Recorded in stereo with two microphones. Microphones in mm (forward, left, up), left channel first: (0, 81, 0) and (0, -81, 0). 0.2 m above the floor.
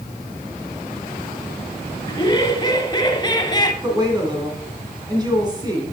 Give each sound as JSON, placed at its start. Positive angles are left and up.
{"t": 2.1, "sound": "laughter", "side_deg": 30, "distance_m": 1.1}
{"t": 3.8, "sound": "a woman speaking", "side_deg": -25, "distance_m": 2.5}